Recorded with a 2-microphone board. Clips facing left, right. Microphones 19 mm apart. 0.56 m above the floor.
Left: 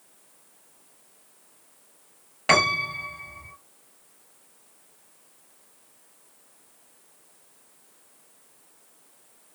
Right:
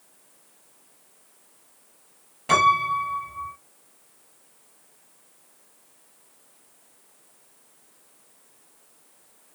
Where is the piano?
55° left (ahead or behind), 4 m.